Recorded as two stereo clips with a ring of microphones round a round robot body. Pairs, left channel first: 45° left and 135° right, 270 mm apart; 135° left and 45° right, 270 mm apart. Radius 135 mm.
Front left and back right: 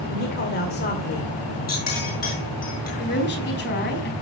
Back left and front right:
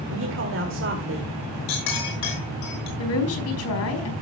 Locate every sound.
0.1 s a man speaking: 5° right, 2.0 m
1.7 s a clink: 105° left, 7 m
3.0 s a woman speaking: 100° left, 4 m